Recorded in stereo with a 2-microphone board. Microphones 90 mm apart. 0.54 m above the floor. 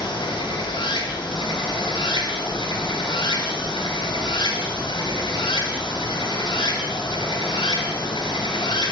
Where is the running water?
70° left (ahead or behind), 3.5 m.